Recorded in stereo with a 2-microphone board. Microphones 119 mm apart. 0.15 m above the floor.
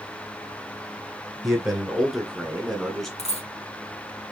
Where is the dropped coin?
75° left (ahead or behind), 1.9 m.